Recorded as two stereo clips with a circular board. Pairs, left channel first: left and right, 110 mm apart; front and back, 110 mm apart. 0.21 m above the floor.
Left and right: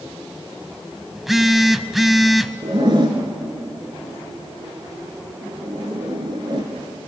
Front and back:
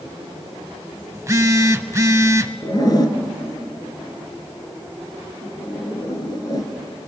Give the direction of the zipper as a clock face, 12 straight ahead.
2 o'clock.